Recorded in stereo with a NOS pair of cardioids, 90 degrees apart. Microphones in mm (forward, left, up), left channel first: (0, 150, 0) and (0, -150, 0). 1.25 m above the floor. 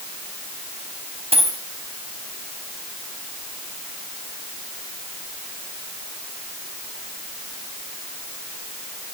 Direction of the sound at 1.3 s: 20° right.